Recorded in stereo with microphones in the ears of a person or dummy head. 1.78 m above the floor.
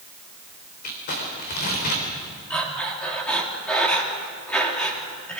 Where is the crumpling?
55° left (ahead or behind), 3.5 m.